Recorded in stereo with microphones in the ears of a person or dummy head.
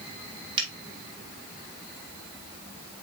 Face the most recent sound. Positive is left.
turn(degrees=-30)  # may be behind; listen again after turning